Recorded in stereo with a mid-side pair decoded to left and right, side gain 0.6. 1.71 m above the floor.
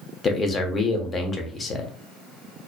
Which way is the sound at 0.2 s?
30° left.